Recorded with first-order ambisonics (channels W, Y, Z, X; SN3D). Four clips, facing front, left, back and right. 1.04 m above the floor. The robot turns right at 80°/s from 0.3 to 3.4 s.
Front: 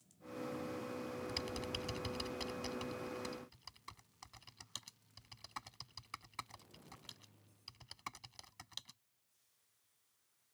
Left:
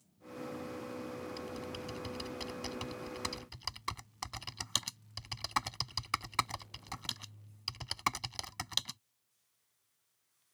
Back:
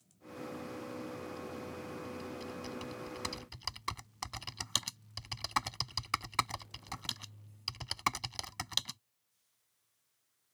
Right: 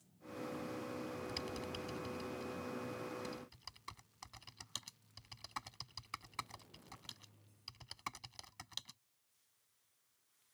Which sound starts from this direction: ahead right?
Typing on a keyboard, at 1.3 s.